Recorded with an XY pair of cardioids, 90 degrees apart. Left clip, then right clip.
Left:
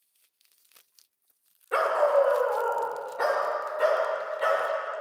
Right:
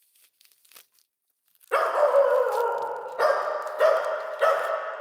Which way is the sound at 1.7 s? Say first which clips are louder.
Right 2 dB; 35° right.